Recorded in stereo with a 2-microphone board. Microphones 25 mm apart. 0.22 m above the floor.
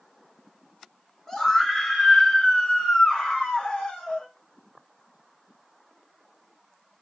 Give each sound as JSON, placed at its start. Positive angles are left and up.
{"t": 1.3, "sound": "a scream", "side_deg": 20, "distance_m": 2.0}